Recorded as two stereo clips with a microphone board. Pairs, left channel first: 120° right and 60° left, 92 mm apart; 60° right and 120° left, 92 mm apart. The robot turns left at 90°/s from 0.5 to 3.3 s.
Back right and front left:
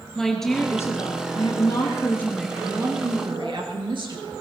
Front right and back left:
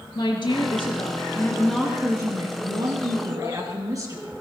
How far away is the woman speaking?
About 3 m.